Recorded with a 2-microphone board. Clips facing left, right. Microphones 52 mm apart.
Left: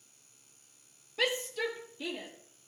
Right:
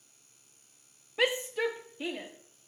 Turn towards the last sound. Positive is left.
turn(degrees=-25)  # may be behind; listen again after turning